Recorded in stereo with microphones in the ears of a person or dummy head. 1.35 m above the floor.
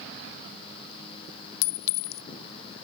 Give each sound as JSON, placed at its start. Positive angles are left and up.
{"t": 1.6, "sound": "a clink", "side_deg": 75, "distance_m": 0.8}